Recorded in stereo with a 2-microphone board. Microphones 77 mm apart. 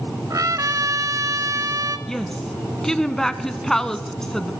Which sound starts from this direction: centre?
A woman speaking, at 2.1 s.